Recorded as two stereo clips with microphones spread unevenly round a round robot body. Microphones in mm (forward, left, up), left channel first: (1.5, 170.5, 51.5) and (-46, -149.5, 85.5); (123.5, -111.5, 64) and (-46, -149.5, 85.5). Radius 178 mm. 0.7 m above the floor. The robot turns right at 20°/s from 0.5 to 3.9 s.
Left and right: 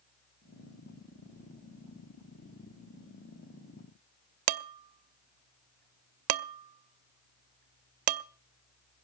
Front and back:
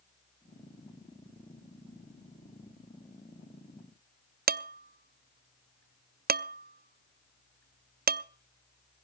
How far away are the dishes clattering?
About 0.7 m.